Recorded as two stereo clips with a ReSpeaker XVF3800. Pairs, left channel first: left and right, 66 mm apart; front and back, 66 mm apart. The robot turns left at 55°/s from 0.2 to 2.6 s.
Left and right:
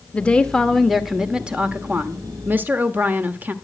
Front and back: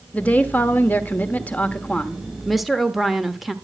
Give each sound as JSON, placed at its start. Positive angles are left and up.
{"t": 0.1, "sound": "a woman speaking", "azimuth_deg": 40, "distance_m": 1.2}